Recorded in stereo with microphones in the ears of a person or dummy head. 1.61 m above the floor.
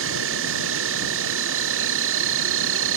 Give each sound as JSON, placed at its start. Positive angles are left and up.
{"t": 0.0, "sound": "an insect", "side_deg": -70}